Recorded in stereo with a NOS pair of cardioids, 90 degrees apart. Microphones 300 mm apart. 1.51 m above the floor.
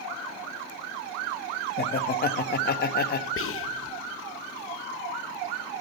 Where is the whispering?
50° left, 0.7 m.